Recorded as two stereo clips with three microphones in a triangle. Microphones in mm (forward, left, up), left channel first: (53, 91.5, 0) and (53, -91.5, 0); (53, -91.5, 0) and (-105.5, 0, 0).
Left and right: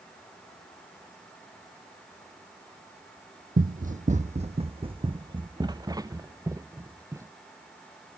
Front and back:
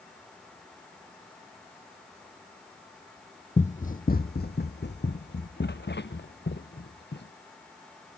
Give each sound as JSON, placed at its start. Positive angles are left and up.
{"t": 3.6, "sound": "running footsteps", "azimuth_deg": -75}